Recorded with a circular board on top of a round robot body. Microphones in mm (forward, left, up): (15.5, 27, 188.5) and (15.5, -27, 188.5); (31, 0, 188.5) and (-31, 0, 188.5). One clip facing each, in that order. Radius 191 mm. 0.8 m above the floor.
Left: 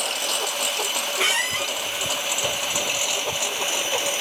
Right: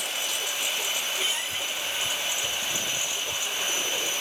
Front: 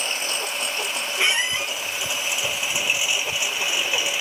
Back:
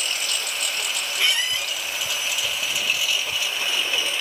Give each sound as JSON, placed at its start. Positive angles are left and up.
{"t": 0.0, "sound": "a lawn mower", "azimuth_deg": 65}
{"t": 1.2, "sound": "a squeak", "azimuth_deg": 70}